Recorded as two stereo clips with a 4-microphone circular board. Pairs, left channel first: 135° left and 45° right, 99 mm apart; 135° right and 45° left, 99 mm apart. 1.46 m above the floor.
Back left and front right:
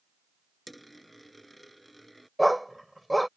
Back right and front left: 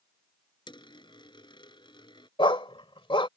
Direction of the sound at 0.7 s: 135° right.